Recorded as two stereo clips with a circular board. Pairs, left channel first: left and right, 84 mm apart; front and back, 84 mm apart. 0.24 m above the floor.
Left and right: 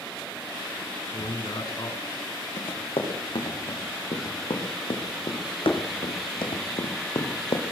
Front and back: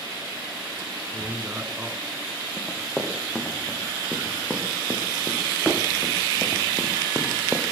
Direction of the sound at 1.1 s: 120° left.